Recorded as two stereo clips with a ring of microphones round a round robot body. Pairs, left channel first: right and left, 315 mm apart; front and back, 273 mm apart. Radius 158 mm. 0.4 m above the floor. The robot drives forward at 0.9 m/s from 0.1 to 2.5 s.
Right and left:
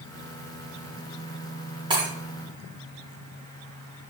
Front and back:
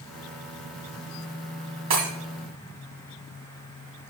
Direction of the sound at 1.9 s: 165° left.